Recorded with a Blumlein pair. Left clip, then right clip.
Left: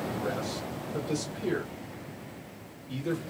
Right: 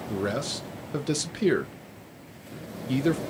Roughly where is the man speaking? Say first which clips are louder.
Right 3 dB; ahead right.